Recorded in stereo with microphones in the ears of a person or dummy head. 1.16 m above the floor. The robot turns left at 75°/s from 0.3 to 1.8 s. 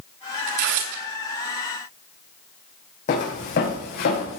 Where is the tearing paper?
45° right (ahead or behind), 2.5 m; by 1.0 s 80° right, 2.5 m.